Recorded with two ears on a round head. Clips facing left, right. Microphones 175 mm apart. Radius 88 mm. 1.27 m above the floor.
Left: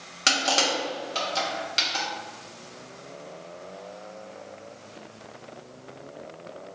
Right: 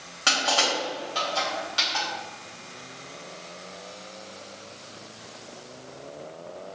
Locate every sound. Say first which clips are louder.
0.3 s crushing: left 1 dB; 25° left (ahead or behind), 0.8 m